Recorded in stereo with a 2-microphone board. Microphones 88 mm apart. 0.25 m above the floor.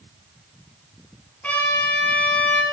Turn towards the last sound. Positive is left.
turn(degrees=20)  # may be behind; listen again after turning